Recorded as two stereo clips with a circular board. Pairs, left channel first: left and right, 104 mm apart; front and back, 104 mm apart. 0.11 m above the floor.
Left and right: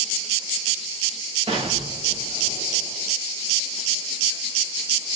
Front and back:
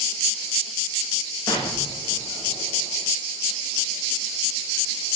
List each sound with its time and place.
1.5 s an explosion: 60° right, 6.5 m